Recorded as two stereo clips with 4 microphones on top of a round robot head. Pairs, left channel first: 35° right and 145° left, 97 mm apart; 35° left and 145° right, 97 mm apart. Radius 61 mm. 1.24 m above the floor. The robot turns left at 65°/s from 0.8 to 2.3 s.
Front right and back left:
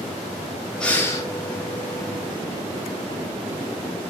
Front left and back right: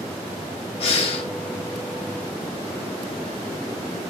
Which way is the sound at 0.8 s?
45° left.